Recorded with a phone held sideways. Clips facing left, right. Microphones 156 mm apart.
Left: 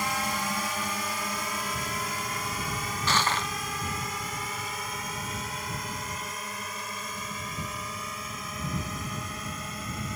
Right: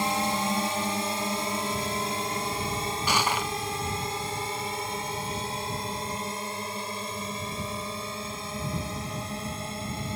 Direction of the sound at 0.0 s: 30° right (ahead or behind).